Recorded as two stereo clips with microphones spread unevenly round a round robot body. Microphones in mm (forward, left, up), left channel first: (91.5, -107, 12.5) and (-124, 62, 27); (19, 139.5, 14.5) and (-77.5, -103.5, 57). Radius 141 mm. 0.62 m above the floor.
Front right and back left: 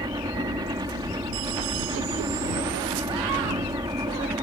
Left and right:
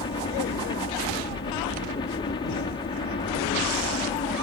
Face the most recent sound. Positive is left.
turn(degrees=80)